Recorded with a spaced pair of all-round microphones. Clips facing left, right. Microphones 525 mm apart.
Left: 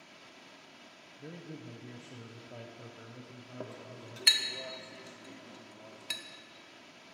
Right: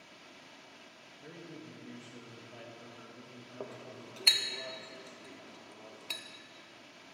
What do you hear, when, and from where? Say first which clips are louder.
1.2 s a man speaking: left 2 dB; 60° left (ahead or behind), 0.8 m
3.6 s a clink: right 1 dB; 40° left (ahead or behind), 0.7 m